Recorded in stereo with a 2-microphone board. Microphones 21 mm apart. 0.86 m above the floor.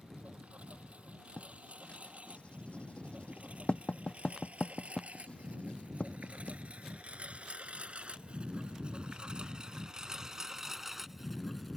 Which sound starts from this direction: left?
Writing, at 1.4 s.